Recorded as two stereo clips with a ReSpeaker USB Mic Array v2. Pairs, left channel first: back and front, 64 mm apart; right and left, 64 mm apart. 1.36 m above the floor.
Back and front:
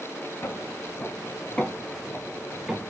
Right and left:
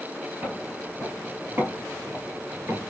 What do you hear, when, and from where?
0.4 s footsteps: 150° left, 2 m; by 2.9 s 90° left, 1.6 m